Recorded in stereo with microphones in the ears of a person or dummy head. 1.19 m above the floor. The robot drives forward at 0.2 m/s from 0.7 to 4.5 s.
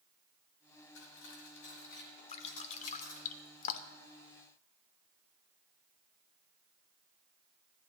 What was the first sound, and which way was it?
Cutlery clinking, 80° left.